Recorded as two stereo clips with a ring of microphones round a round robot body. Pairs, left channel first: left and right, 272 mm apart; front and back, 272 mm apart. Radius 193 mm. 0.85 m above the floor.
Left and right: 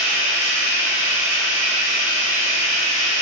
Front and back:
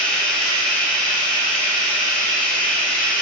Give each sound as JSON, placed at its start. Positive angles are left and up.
{"t": 0.0, "sound": "running water", "azimuth_deg": 85, "distance_m": 1.1}